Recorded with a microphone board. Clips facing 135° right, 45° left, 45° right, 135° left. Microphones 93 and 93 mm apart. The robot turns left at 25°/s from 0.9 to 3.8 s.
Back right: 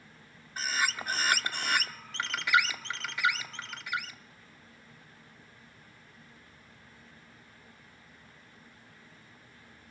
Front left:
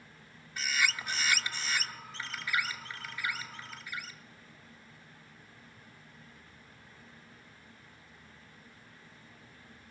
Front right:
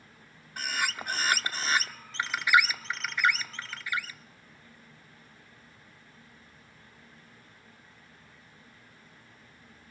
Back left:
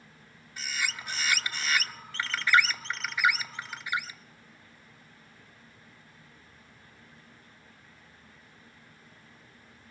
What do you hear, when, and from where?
0.6 s a bird: 80° right, 0.6 m; by 4.2 s 155° right, 0.6 m